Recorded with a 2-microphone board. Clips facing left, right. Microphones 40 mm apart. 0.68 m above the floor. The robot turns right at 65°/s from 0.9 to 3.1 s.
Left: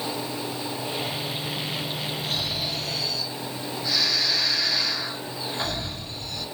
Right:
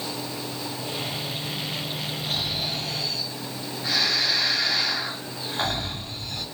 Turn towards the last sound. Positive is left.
turn(degrees=-110)